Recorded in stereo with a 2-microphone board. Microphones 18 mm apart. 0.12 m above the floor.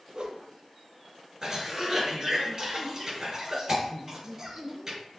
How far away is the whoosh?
About 0.8 m.